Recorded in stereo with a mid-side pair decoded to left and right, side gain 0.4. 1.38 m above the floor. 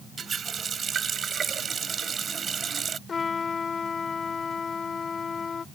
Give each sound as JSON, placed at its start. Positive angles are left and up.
{"t": 0.2, "sound": "a running tap", "azimuth_deg": -50}
{"t": 3.1, "sound": "a trumpet", "azimuth_deg": 45}